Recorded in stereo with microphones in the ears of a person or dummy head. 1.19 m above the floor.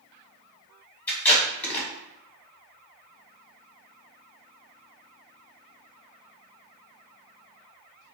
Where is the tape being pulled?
10° left (ahead or behind), 1.0 m.